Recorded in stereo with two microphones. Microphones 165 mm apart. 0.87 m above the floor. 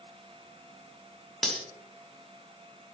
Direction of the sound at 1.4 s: Centre (ahead or behind).